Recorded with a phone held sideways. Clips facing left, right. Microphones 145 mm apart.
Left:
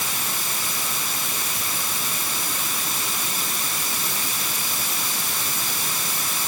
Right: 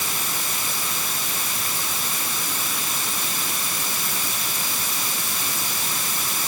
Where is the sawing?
I don't hear sawing.